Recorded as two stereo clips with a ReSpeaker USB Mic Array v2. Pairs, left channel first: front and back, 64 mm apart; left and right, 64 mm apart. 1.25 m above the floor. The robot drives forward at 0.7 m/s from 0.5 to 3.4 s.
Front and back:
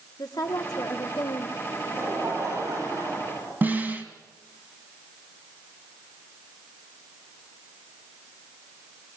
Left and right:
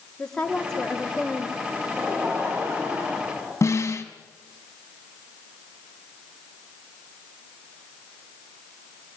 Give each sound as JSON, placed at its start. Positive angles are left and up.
{"t": 0.2, "sound": "a woman speaking", "azimuth_deg": 10, "distance_m": 3.0}
{"t": 1.7, "sound": "laughter", "azimuth_deg": -135, "distance_m": 9.0}
{"t": 3.6, "sound": "a snare drum", "azimuth_deg": 125, "distance_m": 2.5}